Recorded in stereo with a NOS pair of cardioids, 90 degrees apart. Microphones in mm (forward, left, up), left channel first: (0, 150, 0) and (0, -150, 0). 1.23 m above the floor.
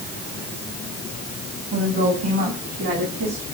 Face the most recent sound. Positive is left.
turn(degrees=-50)